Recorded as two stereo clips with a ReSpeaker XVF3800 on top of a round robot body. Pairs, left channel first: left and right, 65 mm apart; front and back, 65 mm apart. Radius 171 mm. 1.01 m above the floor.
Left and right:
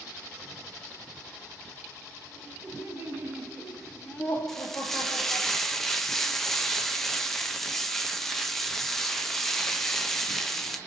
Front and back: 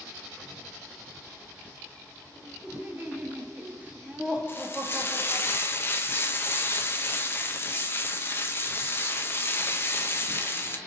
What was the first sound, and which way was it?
Laughter, 120° right.